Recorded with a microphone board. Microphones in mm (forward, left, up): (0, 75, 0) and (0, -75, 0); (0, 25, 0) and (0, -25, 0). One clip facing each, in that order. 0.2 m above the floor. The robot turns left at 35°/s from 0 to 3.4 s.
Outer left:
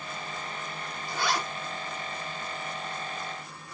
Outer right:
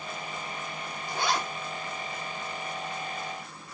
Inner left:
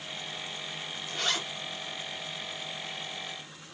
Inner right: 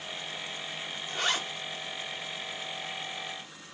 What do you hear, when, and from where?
1.1 s a zipper: 20° right (ahead or behind), 1.1 m; by 1.4 s 25° right (ahead or behind), 1.1 m